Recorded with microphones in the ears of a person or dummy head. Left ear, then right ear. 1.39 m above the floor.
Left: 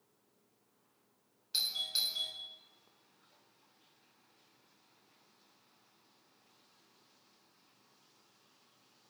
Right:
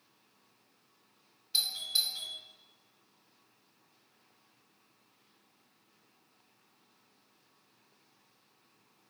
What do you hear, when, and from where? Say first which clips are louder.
1.5 s a doorbell: right 3 dB; 10° left (ahead or behind), 3 m